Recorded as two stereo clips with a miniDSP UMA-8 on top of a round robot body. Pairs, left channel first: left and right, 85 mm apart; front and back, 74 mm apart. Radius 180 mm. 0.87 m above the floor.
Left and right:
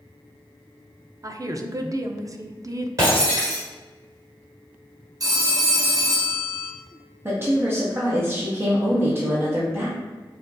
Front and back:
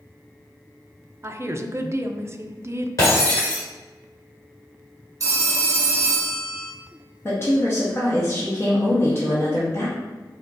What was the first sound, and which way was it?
A woman speaking, 130° right.